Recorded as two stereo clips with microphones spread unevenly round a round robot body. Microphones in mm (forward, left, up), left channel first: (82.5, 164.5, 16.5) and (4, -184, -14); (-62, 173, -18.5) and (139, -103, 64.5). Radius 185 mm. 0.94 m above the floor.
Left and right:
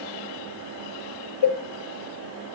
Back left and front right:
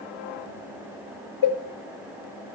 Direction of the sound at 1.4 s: 95° left.